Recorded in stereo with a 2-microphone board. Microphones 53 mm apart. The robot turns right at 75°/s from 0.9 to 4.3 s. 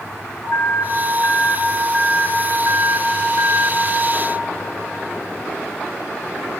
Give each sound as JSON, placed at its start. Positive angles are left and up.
{"t": 0.4, "sound": "an alarm", "azimuth_deg": 105, "distance_m": 2.5}